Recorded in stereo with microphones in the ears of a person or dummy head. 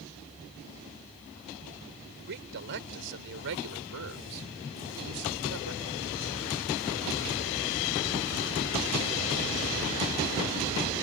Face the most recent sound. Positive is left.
turn(degrees=-75)  # may be behind; listen again after turning